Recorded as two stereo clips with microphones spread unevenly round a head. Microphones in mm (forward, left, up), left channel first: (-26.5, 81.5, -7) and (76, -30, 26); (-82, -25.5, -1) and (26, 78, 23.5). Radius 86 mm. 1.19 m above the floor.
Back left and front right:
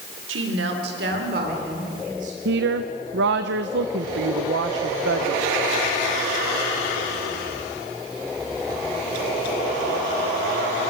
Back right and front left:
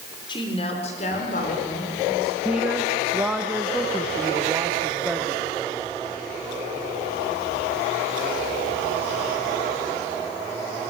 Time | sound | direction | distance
0.3 | a woman speaking | 70° right | 3 m
2.5 | a woman speaking | 45° right | 0.9 m